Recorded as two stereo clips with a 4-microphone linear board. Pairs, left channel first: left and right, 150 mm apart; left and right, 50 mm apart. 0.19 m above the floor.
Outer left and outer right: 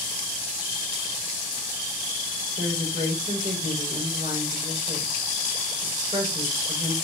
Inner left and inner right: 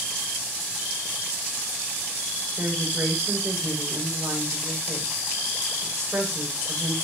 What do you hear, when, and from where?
2.6 s a woman speaking: 55° right (ahead or behind), 8.5 m